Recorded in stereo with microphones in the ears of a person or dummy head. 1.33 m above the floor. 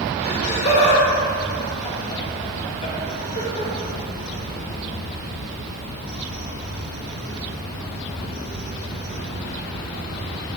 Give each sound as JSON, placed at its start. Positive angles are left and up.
{"t": 0.2, "sound": "laughter", "side_deg": 40, "distance_m": 1.7}